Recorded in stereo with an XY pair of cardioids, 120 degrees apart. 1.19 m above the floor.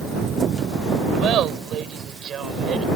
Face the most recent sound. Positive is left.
turn(degrees=-45)